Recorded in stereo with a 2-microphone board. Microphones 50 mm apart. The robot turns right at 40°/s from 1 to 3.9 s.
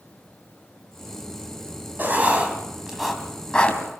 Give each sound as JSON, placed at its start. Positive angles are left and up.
{"t": 2.0, "sound": "writing", "side_deg": -45, "distance_m": 3.0}